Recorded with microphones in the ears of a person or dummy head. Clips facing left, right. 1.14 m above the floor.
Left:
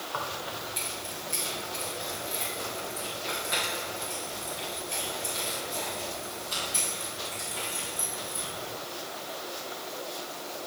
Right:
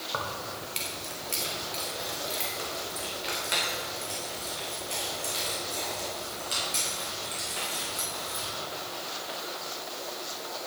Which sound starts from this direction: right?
Keys jangling, at 0.1 s.